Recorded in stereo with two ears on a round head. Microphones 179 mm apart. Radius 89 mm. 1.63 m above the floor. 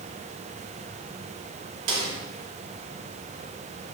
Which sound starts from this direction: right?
A snare drum, at 1.9 s.